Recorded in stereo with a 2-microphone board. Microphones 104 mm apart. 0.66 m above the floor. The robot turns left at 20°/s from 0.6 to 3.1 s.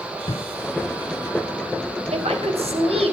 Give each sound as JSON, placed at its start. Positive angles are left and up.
{"t": 0.3, "sound": "a thud", "side_deg": 60, "distance_m": 2.5}
{"t": 2.1, "sound": "a woman speaking", "side_deg": -75, "distance_m": 4.0}